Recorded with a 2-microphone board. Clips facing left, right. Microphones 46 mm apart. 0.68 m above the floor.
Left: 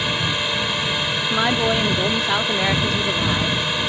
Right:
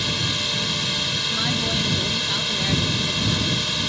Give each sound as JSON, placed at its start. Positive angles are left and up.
{"t": 0.0, "sound": "a drone", "side_deg": 25}
{"t": 1.2, "sound": "a woman speaking", "side_deg": 50}